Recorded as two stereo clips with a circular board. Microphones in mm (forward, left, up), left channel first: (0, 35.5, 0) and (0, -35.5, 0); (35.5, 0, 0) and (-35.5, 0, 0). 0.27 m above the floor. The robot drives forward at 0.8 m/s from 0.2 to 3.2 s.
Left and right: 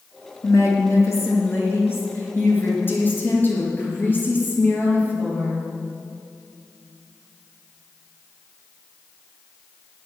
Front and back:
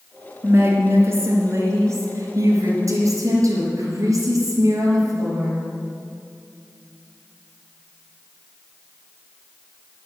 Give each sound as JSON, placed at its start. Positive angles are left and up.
{"t": 0.4, "sound": "a woman speaking", "azimuth_deg": 125, "distance_m": 3.0}